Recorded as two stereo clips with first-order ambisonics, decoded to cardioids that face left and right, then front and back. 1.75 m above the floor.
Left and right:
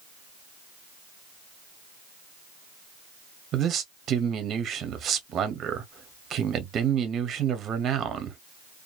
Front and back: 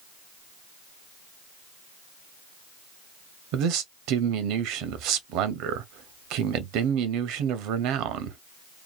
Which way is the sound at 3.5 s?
150° right.